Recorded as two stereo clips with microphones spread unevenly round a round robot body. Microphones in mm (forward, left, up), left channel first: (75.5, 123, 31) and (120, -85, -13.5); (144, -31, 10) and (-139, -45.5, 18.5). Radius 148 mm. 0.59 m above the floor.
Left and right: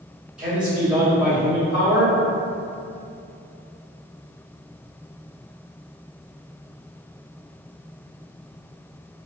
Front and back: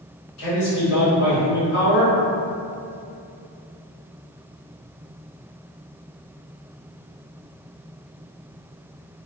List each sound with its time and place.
0.4 s a man speaking: straight ahead, 1.6 m